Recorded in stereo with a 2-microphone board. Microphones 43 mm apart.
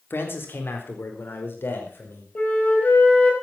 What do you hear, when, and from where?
0.1 s a man speaking: 65° left (ahead or behind), 4 m; by 2.2 s 60° left (ahead or behind), 6 m
2.4 s a flute: 40° left (ahead or behind), 5 m